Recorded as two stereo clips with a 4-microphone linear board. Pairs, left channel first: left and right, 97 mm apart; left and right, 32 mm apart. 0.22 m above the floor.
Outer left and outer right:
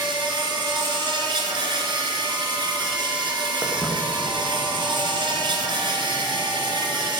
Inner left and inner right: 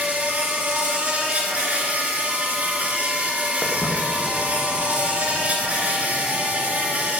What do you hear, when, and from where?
0.0 s an insect: 55° right (ahead or behind), 2 m
3.6 s footsteps: 15° right (ahead or behind), 2.5 m; by 7.1 s 35° left (ahead or behind), 4 m